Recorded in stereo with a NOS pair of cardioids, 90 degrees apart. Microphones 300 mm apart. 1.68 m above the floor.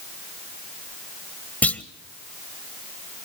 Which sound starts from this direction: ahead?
A clunk, at 1.6 s.